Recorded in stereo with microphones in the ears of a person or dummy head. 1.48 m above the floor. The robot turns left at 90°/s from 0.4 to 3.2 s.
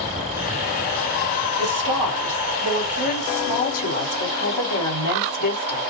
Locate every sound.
1.6 s a woman speaking: 125° right, 3 m; by 5.8 s 90° left, 3 m